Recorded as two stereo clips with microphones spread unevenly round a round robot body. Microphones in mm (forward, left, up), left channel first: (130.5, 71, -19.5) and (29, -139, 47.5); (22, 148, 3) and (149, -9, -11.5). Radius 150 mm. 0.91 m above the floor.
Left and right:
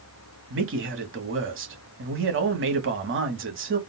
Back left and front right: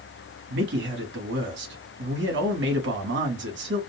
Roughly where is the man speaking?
Right.